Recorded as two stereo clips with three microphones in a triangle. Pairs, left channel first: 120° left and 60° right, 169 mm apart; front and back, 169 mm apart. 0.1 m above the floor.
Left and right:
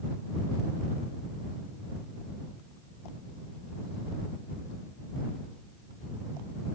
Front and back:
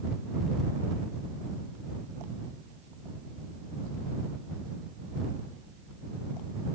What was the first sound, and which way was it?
Only background noise.